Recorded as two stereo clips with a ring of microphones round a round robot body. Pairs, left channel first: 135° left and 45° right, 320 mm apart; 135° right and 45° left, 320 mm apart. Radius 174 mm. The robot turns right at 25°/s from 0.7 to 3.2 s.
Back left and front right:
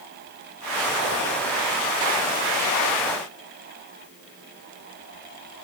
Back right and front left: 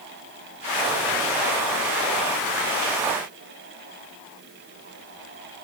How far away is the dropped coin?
No dropped coin in this recording.